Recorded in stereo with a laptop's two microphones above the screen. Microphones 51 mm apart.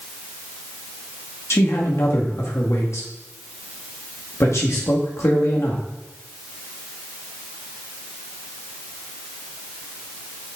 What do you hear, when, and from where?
1.5 s a man speaking: 65° left (ahead or behind), 1.9 m